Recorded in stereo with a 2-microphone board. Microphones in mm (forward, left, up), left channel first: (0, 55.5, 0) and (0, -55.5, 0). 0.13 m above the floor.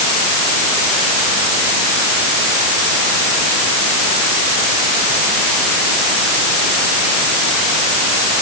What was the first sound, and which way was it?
Only background noise.